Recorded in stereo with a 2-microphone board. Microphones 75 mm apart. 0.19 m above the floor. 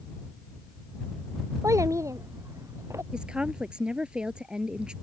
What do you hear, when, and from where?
1.6 s a child speaking: 45° right (ahead or behind); by 3.0 s 40° right (ahead or behind)
3.1 s a woman speaking: 15° right (ahead or behind)